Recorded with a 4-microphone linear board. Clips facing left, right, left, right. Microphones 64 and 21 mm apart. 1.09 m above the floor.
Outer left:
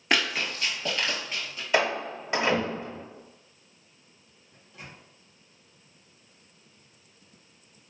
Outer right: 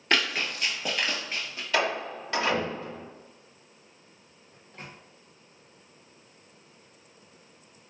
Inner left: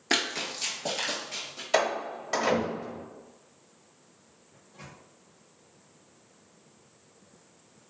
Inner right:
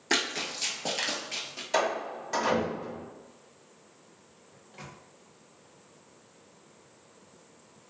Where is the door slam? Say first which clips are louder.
Outer left 2 dB, inner left 2 dB; 20° left (ahead or behind), 1.1 m.